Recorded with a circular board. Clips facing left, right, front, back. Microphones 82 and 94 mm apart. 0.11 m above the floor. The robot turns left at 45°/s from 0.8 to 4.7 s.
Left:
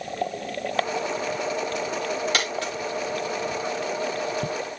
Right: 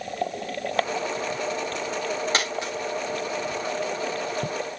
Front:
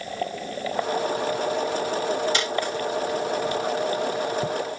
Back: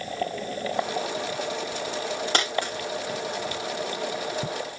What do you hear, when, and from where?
2.3 s a dropped coin: 145° right, 6.5 m; by 2.7 s 165° right, 6.5 m